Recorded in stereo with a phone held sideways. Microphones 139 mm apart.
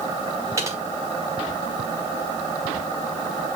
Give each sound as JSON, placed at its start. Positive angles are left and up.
{"t": 0.6, "sound": "typing on a keyboard", "side_deg": -25, "distance_m": 1.9}